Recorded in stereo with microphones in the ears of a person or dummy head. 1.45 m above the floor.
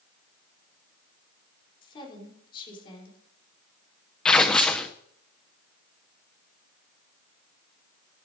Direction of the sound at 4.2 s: 5° left (ahead or behind).